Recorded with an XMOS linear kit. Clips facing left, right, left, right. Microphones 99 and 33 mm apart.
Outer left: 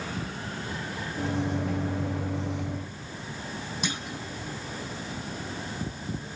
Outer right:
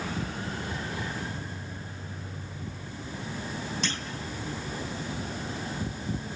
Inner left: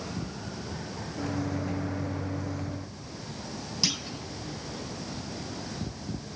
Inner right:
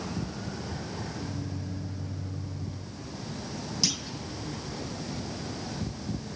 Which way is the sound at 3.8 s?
10° left (ahead or behind).